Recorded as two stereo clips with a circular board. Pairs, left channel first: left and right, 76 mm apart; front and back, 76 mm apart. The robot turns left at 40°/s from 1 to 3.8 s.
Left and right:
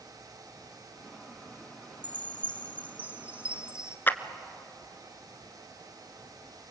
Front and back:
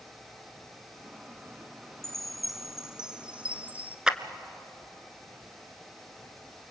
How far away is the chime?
About 0.9 m.